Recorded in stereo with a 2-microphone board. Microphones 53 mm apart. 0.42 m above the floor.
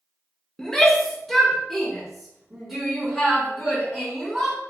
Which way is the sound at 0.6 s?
10° left (ahead or behind).